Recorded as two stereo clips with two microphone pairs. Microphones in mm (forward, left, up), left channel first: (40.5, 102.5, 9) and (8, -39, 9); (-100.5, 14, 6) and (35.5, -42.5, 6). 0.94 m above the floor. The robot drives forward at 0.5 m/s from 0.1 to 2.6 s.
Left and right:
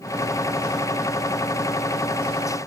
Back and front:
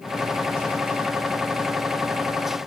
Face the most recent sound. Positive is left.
No sound to turn to.